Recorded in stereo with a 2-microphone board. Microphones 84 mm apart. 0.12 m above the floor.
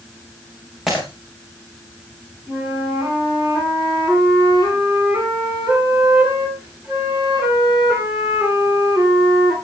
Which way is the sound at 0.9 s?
5° right (ahead or behind).